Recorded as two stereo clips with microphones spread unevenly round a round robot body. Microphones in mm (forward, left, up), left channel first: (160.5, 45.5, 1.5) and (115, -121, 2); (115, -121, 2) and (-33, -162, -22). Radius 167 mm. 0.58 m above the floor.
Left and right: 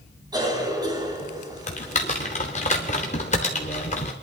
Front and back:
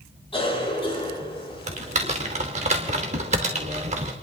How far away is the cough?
About 5.5 m.